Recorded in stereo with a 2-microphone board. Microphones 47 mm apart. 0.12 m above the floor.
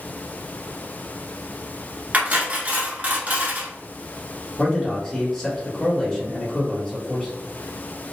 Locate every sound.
2.1 s cutlery clinking: 35° right (ahead or behind), 0.8 m
4.6 s a man speaking: 15° left (ahead or behind), 1.1 m